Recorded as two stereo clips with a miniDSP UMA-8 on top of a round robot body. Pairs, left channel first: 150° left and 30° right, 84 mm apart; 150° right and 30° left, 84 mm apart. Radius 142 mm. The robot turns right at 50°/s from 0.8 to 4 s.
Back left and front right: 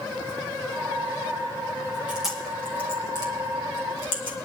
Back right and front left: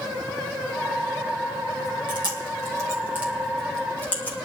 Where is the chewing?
45° left, 3 m; by 4.4 s 140° left, 3 m.